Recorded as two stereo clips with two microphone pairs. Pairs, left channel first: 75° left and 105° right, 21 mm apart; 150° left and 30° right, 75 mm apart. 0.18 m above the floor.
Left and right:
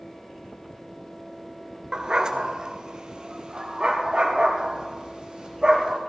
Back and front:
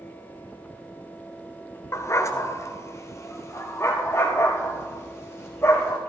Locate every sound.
1.9 s a dog barking: 160° right, 0.9 m; by 6.0 s 155° right, 3.5 m